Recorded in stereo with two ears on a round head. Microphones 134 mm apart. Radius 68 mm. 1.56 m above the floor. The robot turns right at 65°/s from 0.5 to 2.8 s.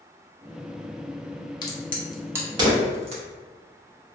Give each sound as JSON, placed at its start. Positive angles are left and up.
{"t": 1.6, "sound": "a crack", "side_deg": 30, "distance_m": 0.7}